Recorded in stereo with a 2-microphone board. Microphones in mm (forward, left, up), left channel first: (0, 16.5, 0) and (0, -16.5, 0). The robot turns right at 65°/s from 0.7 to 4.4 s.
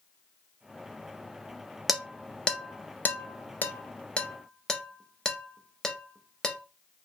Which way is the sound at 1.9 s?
5° right (ahead or behind).